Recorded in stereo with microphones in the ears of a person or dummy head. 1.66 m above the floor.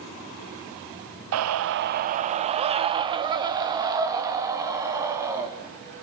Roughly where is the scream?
Right.